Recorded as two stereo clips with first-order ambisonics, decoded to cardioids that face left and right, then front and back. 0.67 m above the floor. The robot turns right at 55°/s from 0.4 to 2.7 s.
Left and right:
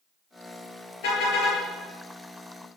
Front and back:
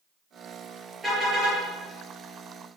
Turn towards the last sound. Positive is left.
turn(degrees=-170)